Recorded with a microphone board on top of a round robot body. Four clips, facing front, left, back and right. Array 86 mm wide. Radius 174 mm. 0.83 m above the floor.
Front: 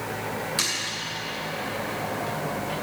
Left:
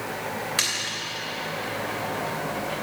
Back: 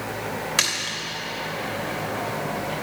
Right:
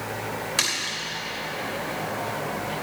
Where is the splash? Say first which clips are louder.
Right 1 dB, back 3 dB; 175° left, 2.5 m.